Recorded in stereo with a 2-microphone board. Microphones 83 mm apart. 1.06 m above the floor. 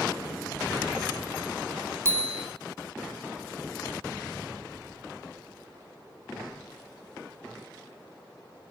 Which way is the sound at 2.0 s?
35° right (ahead or behind).